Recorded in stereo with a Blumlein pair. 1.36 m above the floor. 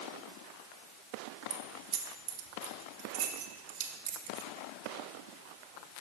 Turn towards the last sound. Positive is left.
turn(degrees=-40)